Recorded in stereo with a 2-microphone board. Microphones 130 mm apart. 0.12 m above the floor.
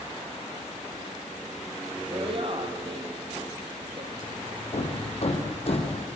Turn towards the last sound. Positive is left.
turn(degrees=50)  # may be behind; listen again after turning